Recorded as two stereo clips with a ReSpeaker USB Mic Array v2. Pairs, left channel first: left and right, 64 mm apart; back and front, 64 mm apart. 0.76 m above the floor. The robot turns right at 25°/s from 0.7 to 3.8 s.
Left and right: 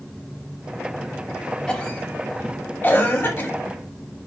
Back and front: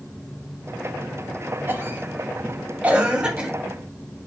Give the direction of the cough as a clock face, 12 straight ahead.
11 o'clock.